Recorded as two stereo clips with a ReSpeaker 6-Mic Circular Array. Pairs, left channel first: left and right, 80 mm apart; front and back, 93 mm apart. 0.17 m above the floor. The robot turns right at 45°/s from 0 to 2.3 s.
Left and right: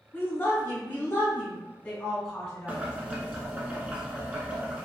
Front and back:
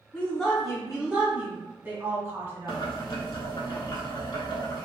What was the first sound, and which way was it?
A woman speaking, 65° left.